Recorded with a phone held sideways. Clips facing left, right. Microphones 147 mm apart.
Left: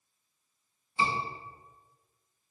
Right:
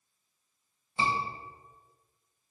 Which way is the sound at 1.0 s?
55° right (ahead or behind).